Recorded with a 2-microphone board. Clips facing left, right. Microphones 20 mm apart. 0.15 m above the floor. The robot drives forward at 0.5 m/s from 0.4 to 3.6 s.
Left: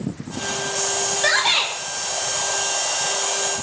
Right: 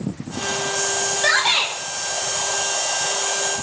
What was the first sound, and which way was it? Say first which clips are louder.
A shout: right 1 dB; 5° left (ahead or behind).